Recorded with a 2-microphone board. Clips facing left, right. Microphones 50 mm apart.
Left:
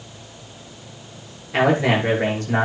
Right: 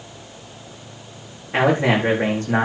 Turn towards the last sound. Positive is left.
turn(degrees=-35)  # may be behind; listen again after turning